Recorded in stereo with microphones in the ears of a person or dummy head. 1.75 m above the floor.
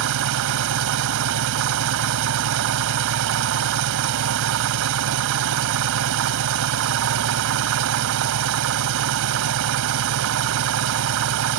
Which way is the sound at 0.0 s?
70° right (ahead or behind).